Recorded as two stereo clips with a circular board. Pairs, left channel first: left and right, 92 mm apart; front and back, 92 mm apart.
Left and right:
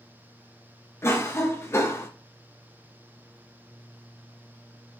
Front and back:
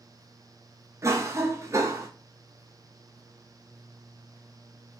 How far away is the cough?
About 0.8 m.